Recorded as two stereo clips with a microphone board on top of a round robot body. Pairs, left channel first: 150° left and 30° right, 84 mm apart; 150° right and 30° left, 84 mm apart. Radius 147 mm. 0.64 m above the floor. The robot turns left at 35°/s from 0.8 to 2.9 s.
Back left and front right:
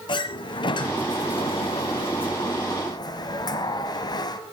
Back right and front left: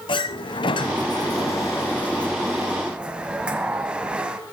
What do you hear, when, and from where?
0.1 s a sliding door: straight behind, 1.3 m; by 4.4 s 110° left, 1.3 m